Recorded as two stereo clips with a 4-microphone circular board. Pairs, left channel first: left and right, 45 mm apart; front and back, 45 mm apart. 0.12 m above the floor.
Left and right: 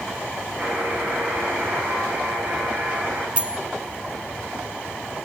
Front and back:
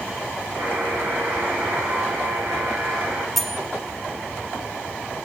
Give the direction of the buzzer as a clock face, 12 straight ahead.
5 o'clock.